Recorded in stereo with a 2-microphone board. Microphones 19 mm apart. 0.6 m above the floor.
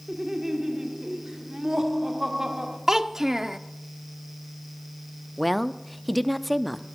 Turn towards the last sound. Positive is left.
turn(degrees=0)  # may be behind; listen again after turning